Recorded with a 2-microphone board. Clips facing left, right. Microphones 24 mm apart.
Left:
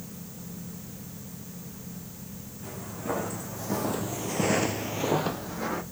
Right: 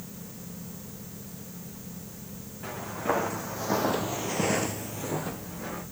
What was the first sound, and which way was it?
Footsteps, 45° right (ahead or behind).